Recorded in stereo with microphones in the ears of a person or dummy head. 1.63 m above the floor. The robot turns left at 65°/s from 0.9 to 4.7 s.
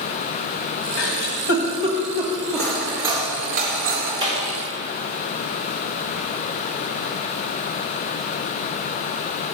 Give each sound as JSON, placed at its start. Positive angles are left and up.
{"t": 1.0, "sound": "a giggle", "side_deg": 70, "distance_m": 1.6}
{"t": 2.5, "sound": "cutlery clinking", "azimuth_deg": 25, "distance_m": 2.5}
{"t": 4.2, "sound": "a clap", "side_deg": -25, "distance_m": 3.0}